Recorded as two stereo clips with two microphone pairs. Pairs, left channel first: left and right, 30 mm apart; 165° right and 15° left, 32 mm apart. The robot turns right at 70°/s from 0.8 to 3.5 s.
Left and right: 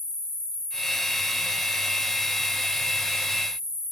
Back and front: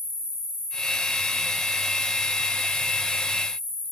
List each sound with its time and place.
0.0 s an insect: 155° left, 3.5 m; by 3.9 s 20° right, 3.5 m